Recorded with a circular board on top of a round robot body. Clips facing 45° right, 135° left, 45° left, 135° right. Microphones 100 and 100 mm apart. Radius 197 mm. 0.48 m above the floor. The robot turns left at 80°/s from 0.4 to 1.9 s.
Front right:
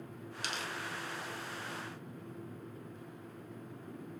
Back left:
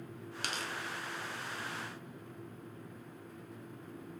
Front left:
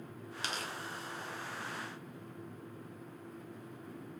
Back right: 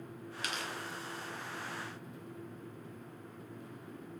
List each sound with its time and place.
0.4 s tearing paper: 100° left, 0.7 m; by 0.7 s 80° left, 0.7 m